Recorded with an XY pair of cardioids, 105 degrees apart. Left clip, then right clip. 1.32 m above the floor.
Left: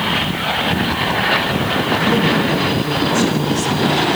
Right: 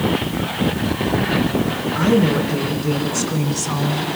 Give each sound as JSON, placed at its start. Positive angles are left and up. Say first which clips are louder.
{"t": 1.9, "sound": "a woman speaking", "louder": "right 1 dB", "azimuth_deg": -35, "distance_m": 6.0}